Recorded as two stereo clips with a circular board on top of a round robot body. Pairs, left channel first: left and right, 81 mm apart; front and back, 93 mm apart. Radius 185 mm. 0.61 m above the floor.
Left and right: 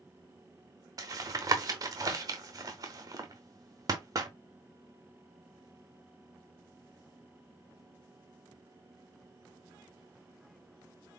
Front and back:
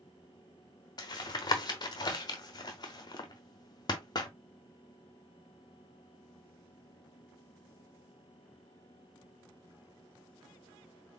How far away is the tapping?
About 0.7 m.